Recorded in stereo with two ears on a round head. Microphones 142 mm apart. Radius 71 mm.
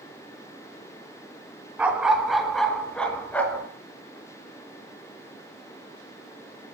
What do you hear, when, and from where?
1.8 s a dog barking: 10° right (ahead or behind), 2.5 m; by 3.7 s 10° left (ahead or behind), 3.5 m